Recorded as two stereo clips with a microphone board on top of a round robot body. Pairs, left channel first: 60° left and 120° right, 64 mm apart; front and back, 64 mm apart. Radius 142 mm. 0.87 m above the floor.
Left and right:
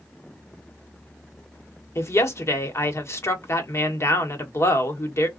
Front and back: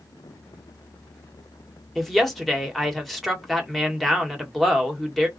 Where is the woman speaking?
85° left, 1.2 m.